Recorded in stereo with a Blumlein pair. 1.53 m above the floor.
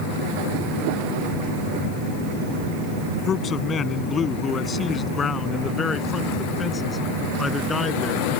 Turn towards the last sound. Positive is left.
turn(degrees=15)